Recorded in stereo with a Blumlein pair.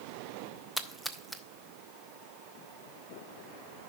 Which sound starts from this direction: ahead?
A splash, at 0.8 s.